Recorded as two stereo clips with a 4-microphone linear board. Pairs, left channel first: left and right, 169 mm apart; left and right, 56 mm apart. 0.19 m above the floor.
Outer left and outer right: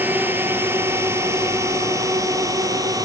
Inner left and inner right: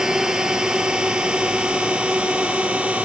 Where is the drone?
10° right (ahead or behind); by 3.1 s 20° right (ahead or behind).